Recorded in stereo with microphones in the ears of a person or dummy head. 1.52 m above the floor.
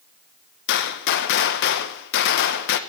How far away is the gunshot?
About 1.2 m.